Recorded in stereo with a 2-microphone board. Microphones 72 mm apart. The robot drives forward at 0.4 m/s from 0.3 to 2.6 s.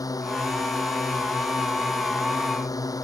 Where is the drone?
55° left (ahead or behind).